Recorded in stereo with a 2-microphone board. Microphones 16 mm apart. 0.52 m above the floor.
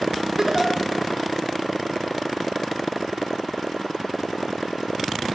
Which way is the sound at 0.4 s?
15° right (ahead or behind).